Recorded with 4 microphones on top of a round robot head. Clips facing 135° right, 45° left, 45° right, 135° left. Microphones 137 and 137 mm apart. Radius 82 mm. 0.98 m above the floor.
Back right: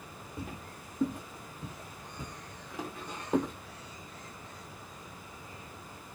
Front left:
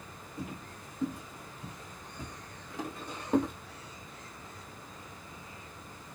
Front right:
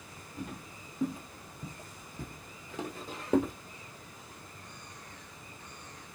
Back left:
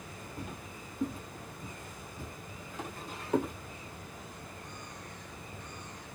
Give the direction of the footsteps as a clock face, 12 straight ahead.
5 o'clock.